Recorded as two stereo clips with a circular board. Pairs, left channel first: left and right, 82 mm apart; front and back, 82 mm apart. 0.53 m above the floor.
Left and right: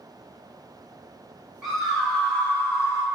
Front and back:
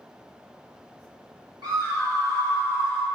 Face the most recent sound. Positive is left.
turn(degrees=125)